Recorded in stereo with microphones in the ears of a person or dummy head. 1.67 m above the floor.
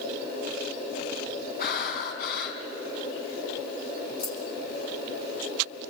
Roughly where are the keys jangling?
Left.